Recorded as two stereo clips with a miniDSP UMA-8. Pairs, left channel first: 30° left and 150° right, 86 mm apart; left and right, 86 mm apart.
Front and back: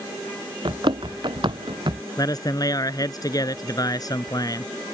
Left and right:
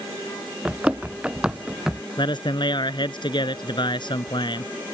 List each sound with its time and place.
0.7 s running footsteps: 165° right; by 2.0 s 170° right
2.2 s a man speaking: 70° left